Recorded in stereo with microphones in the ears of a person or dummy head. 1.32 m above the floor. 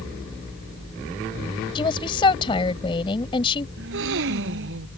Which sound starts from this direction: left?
A woman speaking, at 1.8 s.